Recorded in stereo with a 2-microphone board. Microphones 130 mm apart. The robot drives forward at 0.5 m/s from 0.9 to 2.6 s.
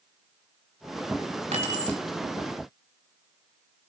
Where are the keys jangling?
70° right (ahead or behind), 2.5 m; by 2.0 s 75° right (ahead or behind), 2.5 m.